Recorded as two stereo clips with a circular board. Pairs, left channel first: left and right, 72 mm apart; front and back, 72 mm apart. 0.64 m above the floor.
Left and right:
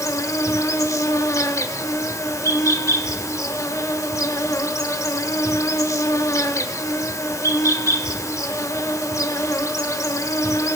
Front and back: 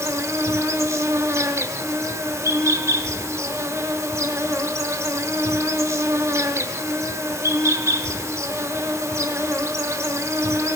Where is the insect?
135° left, 0.9 m.